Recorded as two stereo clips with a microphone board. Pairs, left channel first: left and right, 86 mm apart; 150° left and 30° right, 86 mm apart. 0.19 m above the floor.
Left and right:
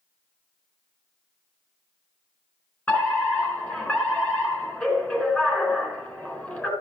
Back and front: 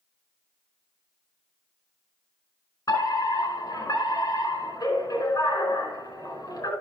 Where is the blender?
I don't hear a blender.